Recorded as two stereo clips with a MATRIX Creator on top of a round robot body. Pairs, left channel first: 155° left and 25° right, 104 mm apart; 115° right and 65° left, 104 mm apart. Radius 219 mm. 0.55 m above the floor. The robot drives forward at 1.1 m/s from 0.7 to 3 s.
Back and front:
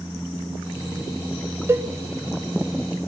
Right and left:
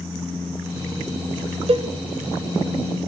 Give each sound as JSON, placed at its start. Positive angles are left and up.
{"t": 1.7, "sound": "a cowbell", "azimuth_deg": 40, "distance_m": 1.5}